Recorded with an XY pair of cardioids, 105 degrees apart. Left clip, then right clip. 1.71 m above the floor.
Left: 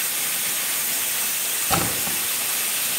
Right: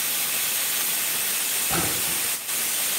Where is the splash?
60° left, 3 m.